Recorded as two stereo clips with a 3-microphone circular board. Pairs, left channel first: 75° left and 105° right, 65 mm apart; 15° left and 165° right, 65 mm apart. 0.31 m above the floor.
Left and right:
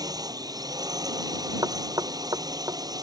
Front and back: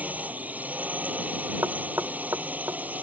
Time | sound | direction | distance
0.0 | a drone | 100° right | ?
1.6 | knocking | 120° right | ?